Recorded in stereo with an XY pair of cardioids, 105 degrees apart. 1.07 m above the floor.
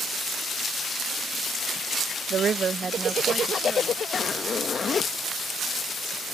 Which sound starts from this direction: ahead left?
A zipper, at 4.1 s.